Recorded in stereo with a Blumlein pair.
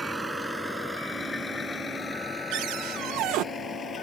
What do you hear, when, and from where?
0.0 s a vehicle: 5° right; by 4.0 s 20° left
2.5 s a cupboard door: 40° right